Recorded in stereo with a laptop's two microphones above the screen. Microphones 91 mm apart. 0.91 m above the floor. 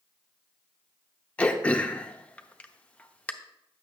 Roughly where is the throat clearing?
Centre.